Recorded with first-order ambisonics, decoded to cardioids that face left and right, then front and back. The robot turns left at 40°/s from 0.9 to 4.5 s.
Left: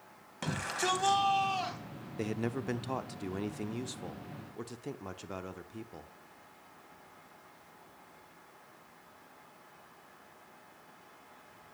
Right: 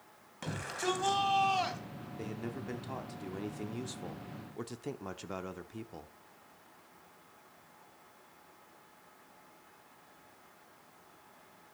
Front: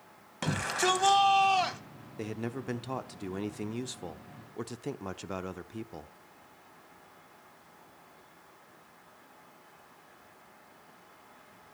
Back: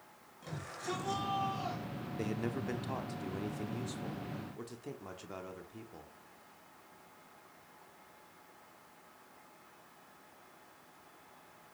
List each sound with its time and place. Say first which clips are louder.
0.4 s a shout: left 3 dB, front 14 dB; 15° left, 2.5 m; by 1.8 s 20° right, 2.5 m
2.2 s a man speaking: left 7 dB, front 1 dB; 85° left, 0.9 m; by 6.1 s 5° right, 0.9 m